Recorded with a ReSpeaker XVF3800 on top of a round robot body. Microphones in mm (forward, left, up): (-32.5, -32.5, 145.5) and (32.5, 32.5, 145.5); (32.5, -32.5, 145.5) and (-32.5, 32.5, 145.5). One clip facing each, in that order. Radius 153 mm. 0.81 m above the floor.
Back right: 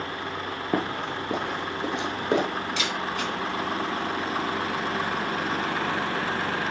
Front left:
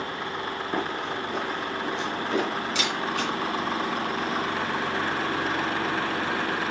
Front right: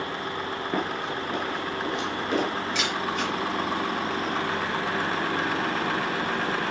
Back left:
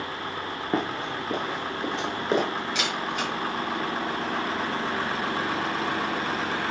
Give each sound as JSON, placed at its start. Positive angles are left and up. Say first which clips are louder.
{"t": 0.7, "sound": "running footsteps", "louder": "back right 3 dB, back left 2 dB", "azimuth_deg": -160, "distance_m": 0.9}
{"t": 2.8, "sound": "a camera shutter", "louder": "front left 1 dB, front right 1 dB", "azimuth_deg": 50, "distance_m": 4.5}